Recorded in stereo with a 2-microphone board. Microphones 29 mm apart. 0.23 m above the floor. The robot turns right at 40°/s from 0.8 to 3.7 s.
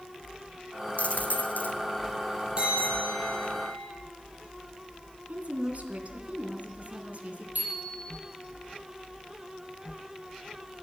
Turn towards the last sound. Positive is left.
turn(degrees=-75)  # may be behind; listen again after turning